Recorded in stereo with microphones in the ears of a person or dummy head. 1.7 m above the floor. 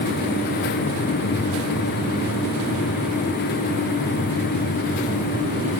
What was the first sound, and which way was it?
Only background noise.